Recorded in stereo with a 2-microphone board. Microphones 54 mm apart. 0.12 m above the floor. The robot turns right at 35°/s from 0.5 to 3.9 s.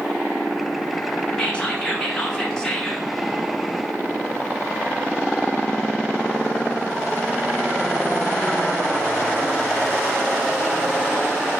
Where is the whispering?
20° left (ahead or behind), 1.0 m; by 3.1 s 10° left (ahead or behind), 1.0 m.